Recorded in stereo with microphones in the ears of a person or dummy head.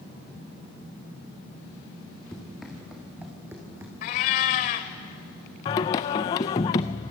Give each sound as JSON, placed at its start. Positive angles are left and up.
{"t": 2.3, "sound": "running footsteps", "side_deg": 5, "distance_m": 4.5}
{"t": 4.0, "sound": "a cat meowing", "side_deg": 40, "distance_m": 1.4}
{"t": 5.7, "sound": "singing", "side_deg": 25, "distance_m": 0.5}